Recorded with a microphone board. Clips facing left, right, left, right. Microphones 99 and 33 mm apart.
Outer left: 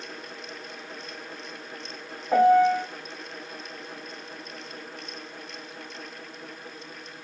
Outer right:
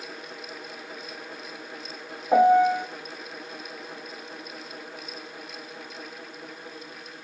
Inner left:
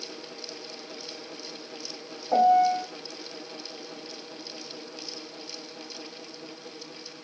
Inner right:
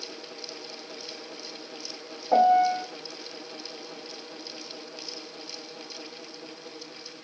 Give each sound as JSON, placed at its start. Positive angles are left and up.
{"t": 2.3, "sound": "a piano", "side_deg": -15, "distance_m": 0.5}